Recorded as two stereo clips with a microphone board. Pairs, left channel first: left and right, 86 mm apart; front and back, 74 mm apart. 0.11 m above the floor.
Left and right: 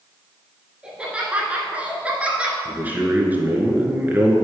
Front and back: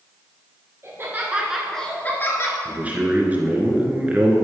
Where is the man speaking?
135° right, 1.5 m.